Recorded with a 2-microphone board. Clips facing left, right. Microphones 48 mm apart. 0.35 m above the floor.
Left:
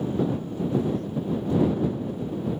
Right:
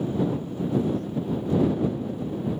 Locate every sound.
Only background noise.